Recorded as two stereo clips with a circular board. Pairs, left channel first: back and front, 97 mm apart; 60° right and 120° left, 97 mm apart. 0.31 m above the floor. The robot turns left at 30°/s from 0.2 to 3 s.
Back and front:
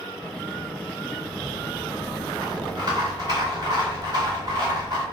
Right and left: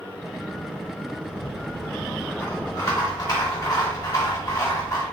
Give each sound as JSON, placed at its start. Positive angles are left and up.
{"t": 1.3, "sound": "a rattle", "azimuth_deg": 25, "distance_m": 1.5}